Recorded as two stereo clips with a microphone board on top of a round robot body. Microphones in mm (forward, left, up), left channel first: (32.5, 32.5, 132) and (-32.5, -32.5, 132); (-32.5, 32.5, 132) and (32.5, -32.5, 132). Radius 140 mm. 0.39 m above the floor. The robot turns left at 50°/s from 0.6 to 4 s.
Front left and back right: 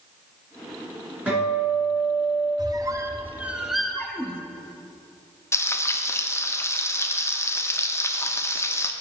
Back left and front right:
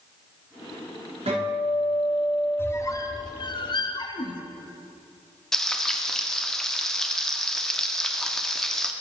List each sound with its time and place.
1.3 s a guitar: 60° right, 3 m; by 2.5 s 120° right, 3 m
2.6 s a squeak: 165° right, 0.7 m; by 4.4 s 125° left, 0.7 m
5.5 s frying: 55° left, 0.8 m